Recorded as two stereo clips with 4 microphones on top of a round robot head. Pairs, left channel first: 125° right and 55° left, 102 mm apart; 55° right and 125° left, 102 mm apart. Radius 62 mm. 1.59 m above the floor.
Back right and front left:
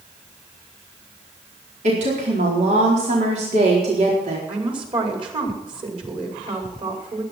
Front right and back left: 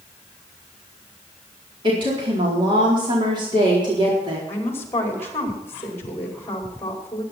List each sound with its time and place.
1.8 s a woman speaking: 75° left, 4 m
4.5 s a woman speaking: 15° left, 5 m